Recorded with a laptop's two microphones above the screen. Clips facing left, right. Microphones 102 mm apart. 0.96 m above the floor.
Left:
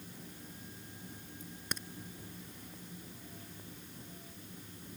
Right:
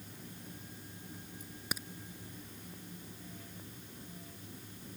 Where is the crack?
5° right (ahead or behind).